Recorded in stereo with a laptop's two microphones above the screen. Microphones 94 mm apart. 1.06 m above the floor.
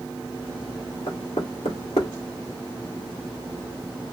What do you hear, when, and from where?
1.1 s knocking: 80° left, 1.5 m